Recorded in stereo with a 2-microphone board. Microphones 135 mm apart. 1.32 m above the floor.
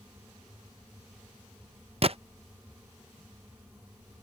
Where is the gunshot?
45° right (ahead or behind).